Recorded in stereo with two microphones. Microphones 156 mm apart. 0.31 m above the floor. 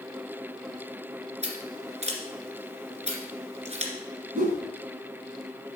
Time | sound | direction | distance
1.4 | scissors | 45° right (ahead or behind) | 1.9 m
4.3 | a whoosh | 60° right (ahead or behind) | 1.8 m